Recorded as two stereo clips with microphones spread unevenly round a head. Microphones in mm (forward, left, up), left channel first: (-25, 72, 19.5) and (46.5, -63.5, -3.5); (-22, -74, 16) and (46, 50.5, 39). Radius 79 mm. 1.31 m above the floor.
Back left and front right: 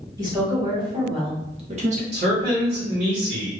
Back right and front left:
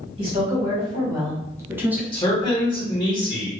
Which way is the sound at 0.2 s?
5° left.